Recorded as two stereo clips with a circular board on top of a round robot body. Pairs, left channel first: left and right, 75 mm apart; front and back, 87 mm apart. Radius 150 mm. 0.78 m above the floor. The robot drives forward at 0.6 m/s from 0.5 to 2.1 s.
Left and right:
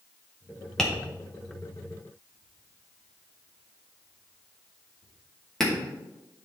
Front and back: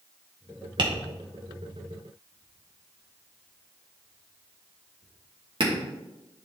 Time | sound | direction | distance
0.8 | tapping | 170° left | 1.7 m